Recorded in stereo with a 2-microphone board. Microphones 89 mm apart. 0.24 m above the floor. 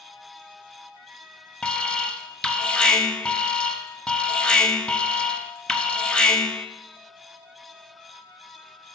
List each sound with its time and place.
1.6 s an alarm: 10° left (ahead or behind), 0.7 m